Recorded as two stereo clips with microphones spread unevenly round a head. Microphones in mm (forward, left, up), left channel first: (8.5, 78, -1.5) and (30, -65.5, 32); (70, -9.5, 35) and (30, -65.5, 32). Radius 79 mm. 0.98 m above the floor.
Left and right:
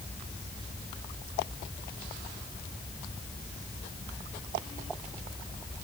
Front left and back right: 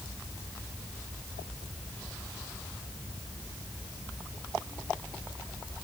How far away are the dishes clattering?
I don't hear dishes clattering.